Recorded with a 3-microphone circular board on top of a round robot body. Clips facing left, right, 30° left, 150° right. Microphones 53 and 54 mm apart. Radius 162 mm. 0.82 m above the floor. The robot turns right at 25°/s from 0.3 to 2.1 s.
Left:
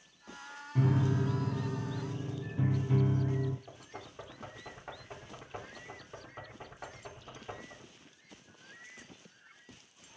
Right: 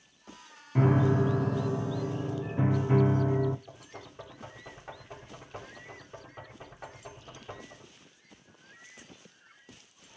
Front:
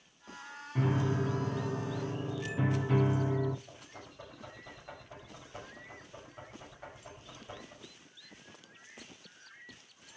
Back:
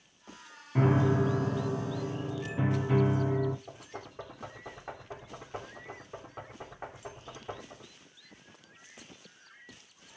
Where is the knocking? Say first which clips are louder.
Right 1 dB, back 6 dB; 170° left, 3 m.